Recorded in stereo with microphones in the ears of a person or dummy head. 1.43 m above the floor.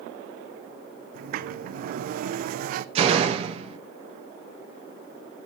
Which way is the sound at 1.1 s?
55° right (ahead or behind).